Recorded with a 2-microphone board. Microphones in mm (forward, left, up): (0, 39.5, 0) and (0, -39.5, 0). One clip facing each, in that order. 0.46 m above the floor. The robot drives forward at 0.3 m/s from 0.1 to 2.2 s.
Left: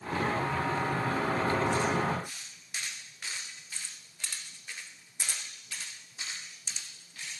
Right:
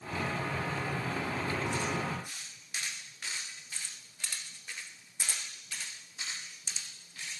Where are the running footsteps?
No running footsteps in this recording.